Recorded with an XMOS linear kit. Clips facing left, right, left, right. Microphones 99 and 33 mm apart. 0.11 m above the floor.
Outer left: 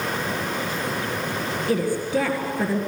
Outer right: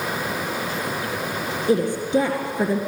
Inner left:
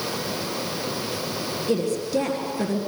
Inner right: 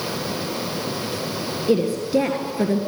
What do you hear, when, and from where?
1.7 s a woman speaking: 20° right (ahead or behind), 1.8 m